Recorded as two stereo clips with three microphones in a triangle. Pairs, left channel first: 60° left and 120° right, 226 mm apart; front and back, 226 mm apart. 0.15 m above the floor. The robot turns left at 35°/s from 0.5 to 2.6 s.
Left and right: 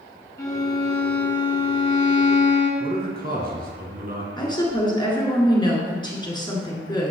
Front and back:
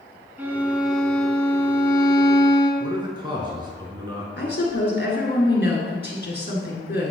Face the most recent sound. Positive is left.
turn(degrees=-5)